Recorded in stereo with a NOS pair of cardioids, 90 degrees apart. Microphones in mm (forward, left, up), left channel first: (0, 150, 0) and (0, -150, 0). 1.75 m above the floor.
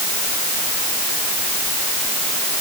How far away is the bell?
No bell in this recording.